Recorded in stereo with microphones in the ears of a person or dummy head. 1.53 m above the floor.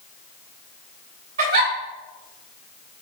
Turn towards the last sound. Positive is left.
turn(degrees=-50)  # may be behind; listen again after turning